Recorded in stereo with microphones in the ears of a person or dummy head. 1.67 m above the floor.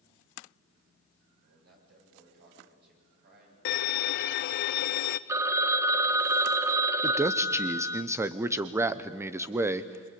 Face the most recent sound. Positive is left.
turn(degrees=-10)  # may be behind; listen again after turning